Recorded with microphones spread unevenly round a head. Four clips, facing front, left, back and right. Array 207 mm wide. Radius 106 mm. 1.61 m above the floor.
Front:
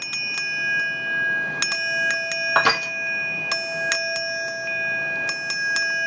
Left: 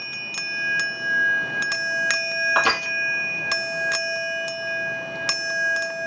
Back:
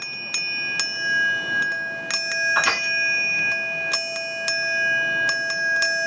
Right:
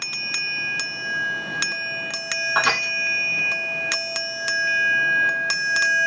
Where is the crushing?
5° left, 1.1 m.